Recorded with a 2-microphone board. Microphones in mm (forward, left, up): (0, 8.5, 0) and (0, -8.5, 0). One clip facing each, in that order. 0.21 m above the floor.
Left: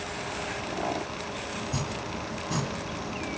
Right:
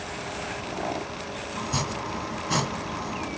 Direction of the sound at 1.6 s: 35° right (ahead or behind).